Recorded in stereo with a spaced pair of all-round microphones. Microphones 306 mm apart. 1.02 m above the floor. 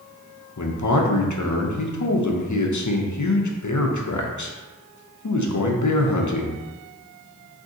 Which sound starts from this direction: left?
A man speaking, at 0.6 s.